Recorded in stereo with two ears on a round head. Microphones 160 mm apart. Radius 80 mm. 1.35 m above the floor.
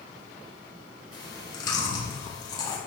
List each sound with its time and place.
1.1 s chewing: 25° left (ahead or behind), 2.0 m